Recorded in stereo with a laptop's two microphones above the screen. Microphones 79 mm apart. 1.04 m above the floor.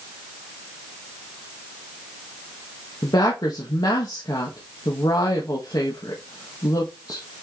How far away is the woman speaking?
About 1.5 m.